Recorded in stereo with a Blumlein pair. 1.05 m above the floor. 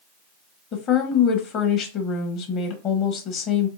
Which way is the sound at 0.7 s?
35° left.